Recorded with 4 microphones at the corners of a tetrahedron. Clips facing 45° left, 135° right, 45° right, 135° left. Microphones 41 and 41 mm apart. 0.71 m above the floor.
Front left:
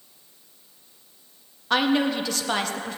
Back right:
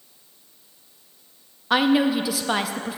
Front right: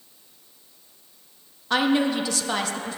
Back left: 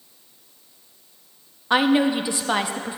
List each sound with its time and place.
1.7 s a woman speaking: 160° left, 0.6 m